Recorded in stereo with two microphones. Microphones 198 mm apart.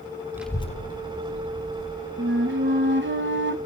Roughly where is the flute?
Right.